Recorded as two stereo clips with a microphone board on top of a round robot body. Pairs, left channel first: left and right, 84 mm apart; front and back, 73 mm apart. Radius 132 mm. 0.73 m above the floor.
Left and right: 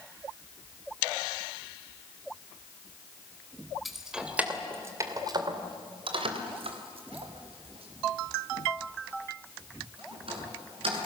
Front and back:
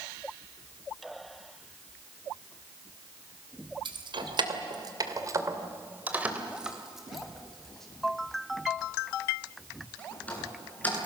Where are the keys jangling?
Straight behind, 3 m; by 11.1 s 70° right, 9.5 m.